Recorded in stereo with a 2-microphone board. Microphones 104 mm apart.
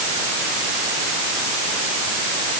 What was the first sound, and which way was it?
Only background noise.